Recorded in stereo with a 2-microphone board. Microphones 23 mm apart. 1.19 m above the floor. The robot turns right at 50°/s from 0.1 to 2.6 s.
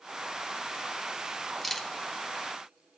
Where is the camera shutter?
5° left (ahead or behind), 1.0 m; by 1.9 s 20° left (ahead or behind), 1.0 m.